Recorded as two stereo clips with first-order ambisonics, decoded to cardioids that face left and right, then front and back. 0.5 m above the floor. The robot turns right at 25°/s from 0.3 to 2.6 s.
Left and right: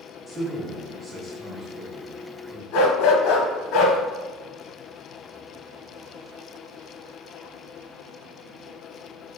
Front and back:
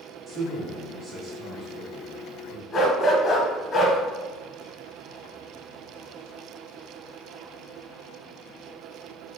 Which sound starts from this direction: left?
A dog barking, at 2.7 s.